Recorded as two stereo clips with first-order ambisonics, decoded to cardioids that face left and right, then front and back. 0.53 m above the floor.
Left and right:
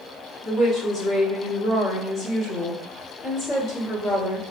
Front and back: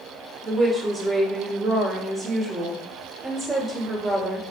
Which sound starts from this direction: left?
A woman speaking, at 0.4 s.